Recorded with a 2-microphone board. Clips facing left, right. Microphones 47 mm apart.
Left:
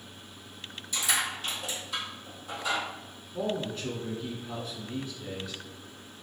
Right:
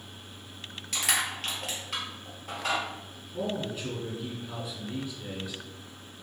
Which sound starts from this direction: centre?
A man speaking, at 3.3 s.